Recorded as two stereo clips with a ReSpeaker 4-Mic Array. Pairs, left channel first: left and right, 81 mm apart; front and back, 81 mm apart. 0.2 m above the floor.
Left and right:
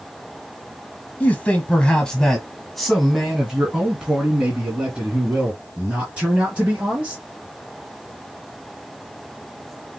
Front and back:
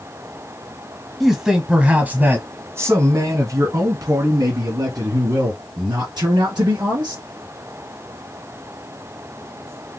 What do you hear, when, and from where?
1.2 s a man speaking: 95° left, 1.3 m; by 7.2 s 155° right, 3.5 m